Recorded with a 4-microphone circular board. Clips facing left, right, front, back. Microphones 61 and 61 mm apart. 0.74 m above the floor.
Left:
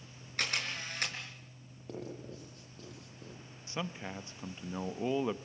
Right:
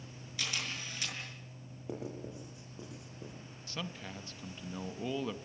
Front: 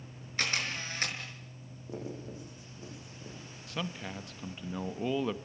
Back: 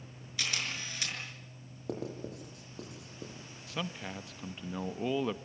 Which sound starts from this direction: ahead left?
A camera shutter, at 0.4 s.